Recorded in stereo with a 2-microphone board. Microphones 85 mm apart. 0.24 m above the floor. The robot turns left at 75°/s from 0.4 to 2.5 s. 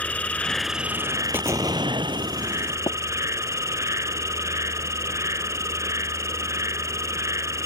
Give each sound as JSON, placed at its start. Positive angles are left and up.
{"t": 0.0, "sound": "an insect", "azimuth_deg": 15}
{"t": 1.3, "sound": "an explosion", "azimuth_deg": -25}
{"t": 2.9, "sound": "tapping", "side_deg": 70}